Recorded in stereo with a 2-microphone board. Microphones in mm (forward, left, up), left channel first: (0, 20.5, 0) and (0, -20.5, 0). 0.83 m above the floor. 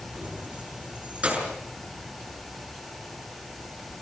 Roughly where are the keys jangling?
Right.